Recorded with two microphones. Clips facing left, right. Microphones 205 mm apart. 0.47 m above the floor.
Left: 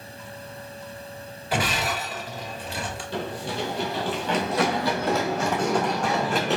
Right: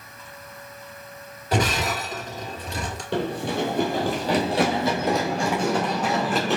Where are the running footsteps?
70° right (ahead or behind), 1.0 m; by 6.6 s centre (ahead or behind), 2 m.